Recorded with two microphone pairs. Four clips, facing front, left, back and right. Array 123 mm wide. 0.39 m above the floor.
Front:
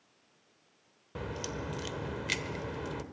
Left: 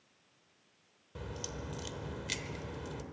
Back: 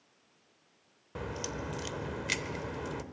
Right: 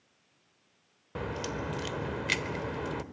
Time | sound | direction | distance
1.1 | a crack | 95° right | 0.8 m